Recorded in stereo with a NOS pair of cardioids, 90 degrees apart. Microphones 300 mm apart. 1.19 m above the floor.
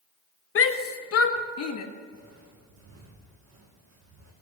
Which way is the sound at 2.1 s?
60° right.